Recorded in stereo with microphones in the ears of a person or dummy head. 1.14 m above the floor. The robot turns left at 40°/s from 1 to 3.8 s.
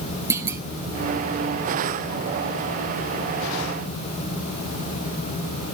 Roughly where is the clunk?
Centre.